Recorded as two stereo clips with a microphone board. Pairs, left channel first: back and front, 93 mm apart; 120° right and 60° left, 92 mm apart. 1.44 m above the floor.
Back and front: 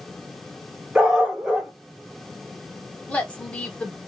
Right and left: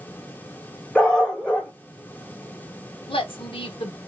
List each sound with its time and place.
0.9 s a dog barking: 75° right, 0.8 m
3.1 s a woman speaking: 105° right, 0.8 m